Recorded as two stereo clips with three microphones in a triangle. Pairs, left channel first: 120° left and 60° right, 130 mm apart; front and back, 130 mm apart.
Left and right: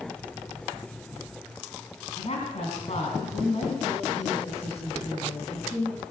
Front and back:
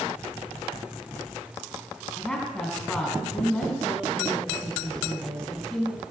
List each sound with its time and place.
2.2 s a woman speaking: 85° left, 4 m